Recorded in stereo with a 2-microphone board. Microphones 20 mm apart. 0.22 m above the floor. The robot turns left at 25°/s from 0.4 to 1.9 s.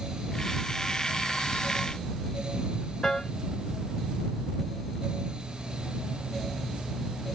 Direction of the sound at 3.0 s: 30° left (ahead or behind).